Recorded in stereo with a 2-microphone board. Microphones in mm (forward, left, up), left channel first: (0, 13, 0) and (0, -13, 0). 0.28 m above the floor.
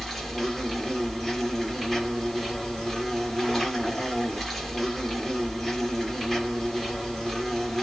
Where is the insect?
Centre (ahead or behind), 1.3 m.